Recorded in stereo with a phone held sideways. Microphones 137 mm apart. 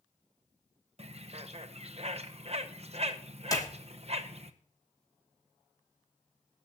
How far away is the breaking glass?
I don't hear breaking glass.